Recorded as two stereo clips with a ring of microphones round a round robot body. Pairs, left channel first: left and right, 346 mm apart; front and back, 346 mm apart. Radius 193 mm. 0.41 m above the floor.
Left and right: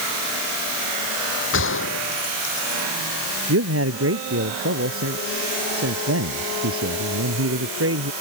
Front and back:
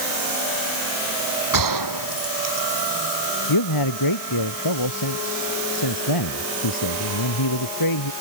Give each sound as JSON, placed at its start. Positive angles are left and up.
{"t": 1.5, "sound": "a gunshot", "azimuth_deg": 150}
{"t": 3.5, "sound": "a man speaking", "azimuth_deg": -40}